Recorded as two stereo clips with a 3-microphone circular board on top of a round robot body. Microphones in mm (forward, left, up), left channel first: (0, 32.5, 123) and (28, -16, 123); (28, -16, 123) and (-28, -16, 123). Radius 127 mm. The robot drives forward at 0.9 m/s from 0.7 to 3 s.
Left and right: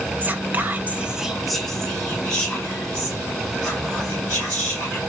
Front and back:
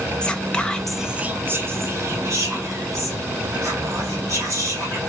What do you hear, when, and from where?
0.2 s whispering: 55° right, 0.7 m; by 5.0 s 170° right, 2 m